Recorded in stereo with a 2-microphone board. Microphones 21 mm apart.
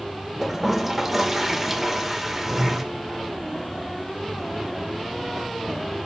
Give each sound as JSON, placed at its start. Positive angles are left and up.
{"t": 0.4, "sound": "a toilet flushing", "side_deg": -10, "distance_m": 0.8}